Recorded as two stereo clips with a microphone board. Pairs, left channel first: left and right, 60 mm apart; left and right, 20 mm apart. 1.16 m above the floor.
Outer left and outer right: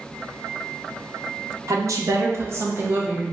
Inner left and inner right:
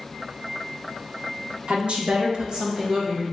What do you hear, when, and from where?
1.7 s a woman speaking: 60° right (ahead or behind), 1.0 m; by 3.2 s 25° right (ahead or behind), 1.3 m